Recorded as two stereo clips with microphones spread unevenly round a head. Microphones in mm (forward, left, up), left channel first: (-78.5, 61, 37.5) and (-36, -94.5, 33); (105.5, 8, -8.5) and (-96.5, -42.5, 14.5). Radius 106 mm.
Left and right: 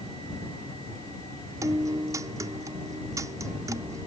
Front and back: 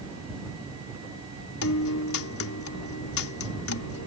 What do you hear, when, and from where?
1.6 s a guitar: straight ahead